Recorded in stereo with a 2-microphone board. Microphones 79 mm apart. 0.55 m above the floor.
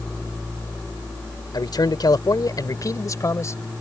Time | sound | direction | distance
1.5 | a man speaking | 65° left (ahead or behind) | ?